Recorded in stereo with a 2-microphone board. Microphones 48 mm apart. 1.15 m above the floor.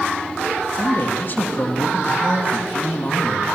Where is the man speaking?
45° left (ahead or behind), 2 m.